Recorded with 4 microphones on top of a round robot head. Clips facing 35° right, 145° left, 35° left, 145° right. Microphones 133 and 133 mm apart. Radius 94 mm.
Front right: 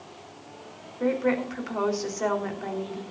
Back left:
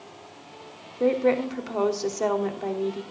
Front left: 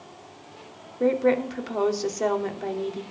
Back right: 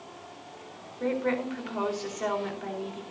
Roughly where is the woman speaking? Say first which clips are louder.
Back left 3 dB, front left 7 dB; left.